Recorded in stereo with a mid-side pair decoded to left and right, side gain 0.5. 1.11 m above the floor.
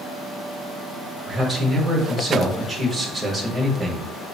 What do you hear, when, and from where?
1.3 s a man speaking: 25° right, 1.3 m